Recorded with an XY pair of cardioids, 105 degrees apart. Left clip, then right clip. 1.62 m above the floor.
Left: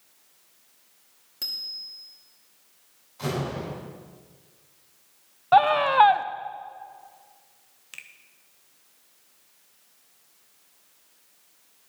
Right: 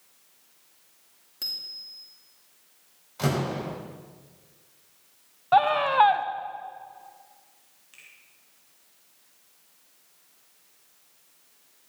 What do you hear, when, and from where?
1.4 s a bicycle bell: 10° left, 2.5 m
3.2 s a door slam: 55° right, 6 m
5.5 s a scream: 15° left, 0.8 m
7.9 s a finger snap: 70° left, 1.5 m